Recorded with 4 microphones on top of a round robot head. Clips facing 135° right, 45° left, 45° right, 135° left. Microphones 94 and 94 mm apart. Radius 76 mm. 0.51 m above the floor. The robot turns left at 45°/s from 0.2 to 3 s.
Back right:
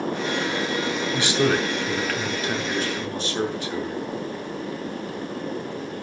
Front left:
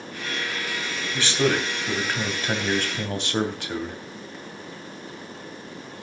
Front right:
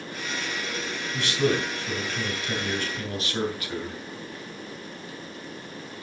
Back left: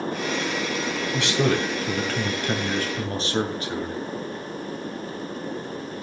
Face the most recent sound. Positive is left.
turn(degrees=75)